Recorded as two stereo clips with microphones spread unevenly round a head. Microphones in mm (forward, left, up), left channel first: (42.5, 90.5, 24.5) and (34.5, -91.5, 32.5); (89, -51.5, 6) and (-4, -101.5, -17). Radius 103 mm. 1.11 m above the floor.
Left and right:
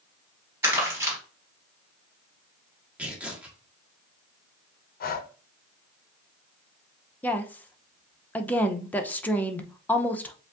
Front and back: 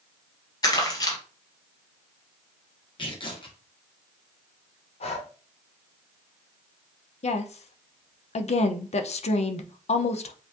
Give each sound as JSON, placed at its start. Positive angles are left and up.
{"t": 0.6, "sound": "crumpling", "azimuth_deg": -15, "distance_m": 3.0}
{"t": 3.0, "sound": "tearing paper", "azimuth_deg": -10, "distance_m": 1.5}
{"t": 5.0, "sound": "breathing", "azimuth_deg": 50, "distance_m": 0.6}
{"t": 7.2, "sound": "a woman speaking", "azimuth_deg": 5, "distance_m": 0.7}